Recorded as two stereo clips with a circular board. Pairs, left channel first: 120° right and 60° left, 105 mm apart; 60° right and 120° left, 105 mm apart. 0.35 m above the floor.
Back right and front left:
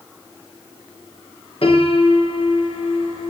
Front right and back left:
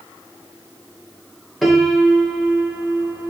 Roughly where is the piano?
Behind right.